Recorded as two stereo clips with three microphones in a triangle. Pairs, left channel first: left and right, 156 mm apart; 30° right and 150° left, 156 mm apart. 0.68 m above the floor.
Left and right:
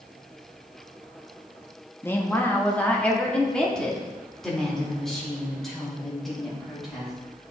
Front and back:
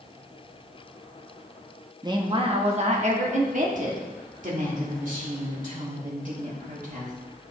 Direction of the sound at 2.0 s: 145° left.